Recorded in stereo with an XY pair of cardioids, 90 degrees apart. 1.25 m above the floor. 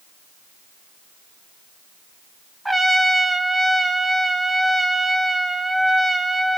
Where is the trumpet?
5° right, 0.8 m.